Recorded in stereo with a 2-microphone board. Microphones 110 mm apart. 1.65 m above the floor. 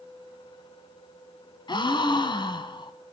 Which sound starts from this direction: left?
A gasp, at 1.7 s.